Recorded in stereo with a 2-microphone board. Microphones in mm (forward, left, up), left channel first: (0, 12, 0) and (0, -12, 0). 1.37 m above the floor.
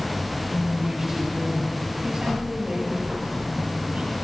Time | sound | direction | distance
0.5 | a woman speaking | 20° right (ahead or behind) | 5.5 m